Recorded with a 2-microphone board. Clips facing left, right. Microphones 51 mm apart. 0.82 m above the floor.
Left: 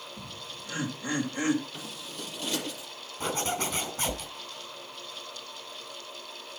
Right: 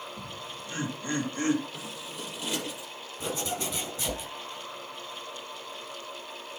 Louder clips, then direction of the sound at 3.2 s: Left 2 dB; 40° left (ahead or behind).